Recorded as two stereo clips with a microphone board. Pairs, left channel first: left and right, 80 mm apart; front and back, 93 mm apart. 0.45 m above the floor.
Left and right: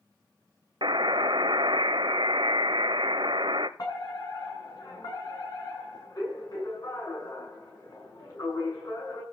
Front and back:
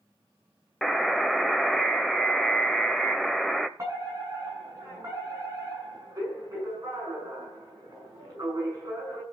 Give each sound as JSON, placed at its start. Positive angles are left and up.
{"t": 0.8, "sound": "a buzzer", "azimuth_deg": -90, "distance_m": 0.9}
{"t": 3.8, "sound": "a fire alarm", "azimuth_deg": 125, "distance_m": 8.0}